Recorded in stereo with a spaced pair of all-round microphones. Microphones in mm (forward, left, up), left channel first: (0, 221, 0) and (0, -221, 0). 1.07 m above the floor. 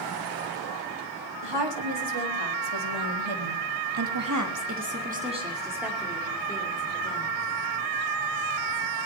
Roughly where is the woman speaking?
Right.